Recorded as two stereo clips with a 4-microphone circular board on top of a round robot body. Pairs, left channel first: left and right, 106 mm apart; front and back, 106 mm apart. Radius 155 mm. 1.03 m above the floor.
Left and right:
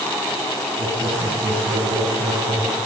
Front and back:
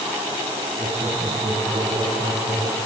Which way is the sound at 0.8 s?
115° right.